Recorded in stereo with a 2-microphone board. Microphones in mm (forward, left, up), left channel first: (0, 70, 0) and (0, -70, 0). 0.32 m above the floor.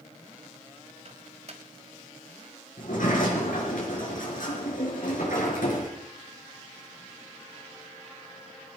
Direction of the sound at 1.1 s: 50° right (ahead or behind).